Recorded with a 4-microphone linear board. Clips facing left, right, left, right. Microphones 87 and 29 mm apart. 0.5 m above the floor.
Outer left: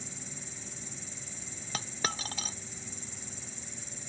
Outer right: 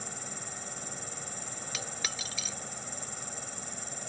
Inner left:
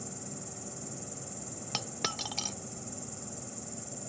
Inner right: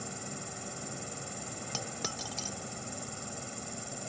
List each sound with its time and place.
0.0 s an insect: 65° right (ahead or behind)
1.7 s a dropped coin: 45° left (ahead or behind)